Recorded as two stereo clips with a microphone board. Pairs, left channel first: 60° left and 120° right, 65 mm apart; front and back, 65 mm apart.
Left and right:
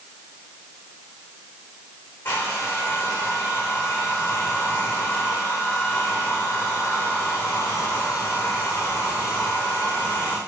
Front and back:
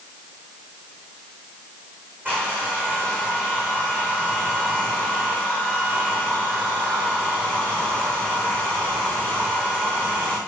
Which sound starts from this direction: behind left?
A hair dryer, at 2.2 s.